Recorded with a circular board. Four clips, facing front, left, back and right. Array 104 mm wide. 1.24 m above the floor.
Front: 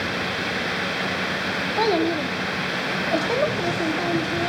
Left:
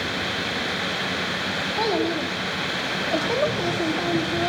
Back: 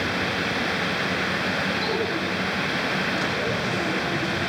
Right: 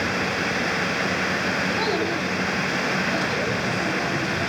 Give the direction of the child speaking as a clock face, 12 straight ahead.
11 o'clock.